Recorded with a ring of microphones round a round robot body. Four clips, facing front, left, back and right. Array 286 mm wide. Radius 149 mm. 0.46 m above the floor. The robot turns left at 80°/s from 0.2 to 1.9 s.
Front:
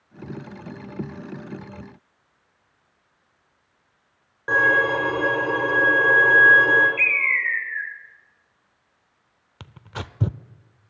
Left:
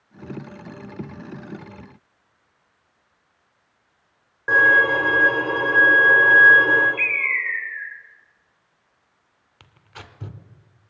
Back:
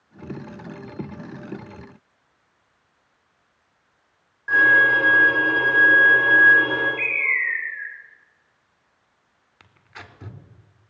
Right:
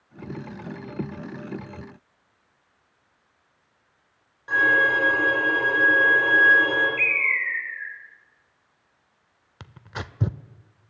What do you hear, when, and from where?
4.5 s a violin: 45° left, 8 m
7.0 s a bird: 5° right, 3.5 m
9.6 s tearing paper: 40° right, 0.6 m